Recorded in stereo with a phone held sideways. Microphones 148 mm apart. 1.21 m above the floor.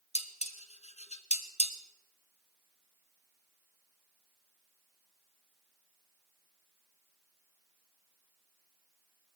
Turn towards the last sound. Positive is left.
turn(degrees=45)  # may be behind; listen again after turning